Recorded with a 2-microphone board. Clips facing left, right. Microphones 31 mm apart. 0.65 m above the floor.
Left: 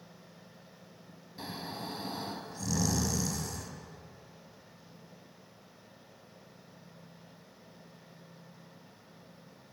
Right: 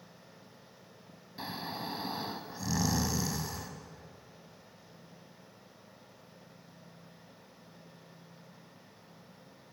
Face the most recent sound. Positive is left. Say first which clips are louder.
# right 2 dB
turn(degrees=-15)  # may be behind; listen again after turning